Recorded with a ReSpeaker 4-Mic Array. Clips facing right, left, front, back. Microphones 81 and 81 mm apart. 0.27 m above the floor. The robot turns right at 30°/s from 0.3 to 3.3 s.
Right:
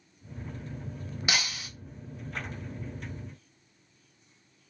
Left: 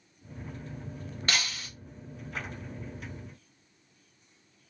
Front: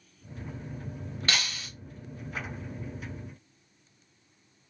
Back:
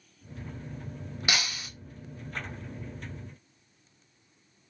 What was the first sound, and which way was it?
Breaking glass, 145° right.